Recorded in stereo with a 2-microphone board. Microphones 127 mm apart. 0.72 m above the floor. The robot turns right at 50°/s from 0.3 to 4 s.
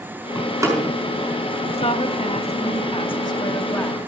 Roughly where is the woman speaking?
Ahead left.